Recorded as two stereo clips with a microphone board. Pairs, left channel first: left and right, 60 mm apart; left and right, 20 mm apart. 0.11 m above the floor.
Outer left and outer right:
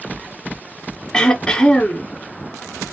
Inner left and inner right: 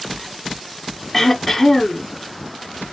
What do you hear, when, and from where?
1.1 s throat clearing: 10° left (ahead or behind), 1.3 m